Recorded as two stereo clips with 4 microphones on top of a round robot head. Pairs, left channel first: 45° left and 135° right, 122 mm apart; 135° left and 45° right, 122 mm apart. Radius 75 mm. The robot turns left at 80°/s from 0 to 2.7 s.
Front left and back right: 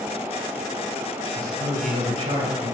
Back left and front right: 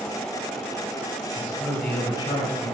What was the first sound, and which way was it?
A man speaking, 115° right.